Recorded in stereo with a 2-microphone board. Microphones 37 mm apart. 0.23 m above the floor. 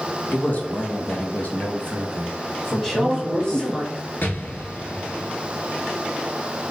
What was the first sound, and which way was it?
A man speaking, 45° left (ahead or behind).